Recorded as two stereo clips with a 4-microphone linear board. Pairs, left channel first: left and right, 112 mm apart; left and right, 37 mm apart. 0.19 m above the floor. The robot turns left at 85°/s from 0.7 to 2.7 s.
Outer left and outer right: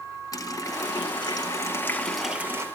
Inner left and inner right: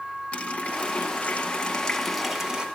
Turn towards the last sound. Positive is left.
turn(degrees=-45)